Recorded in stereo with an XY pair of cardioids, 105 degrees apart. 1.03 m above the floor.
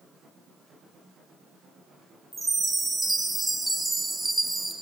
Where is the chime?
10° right, 4.5 m.